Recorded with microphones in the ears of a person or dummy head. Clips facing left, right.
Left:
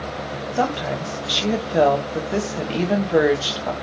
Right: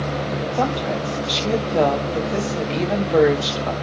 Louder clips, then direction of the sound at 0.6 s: Left 1 dB; 5° left (ahead or behind).